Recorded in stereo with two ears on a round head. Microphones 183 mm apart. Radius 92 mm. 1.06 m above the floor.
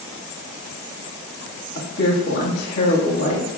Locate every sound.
1.8 s a woman speaking: 50° left (ahead or behind), 1.5 m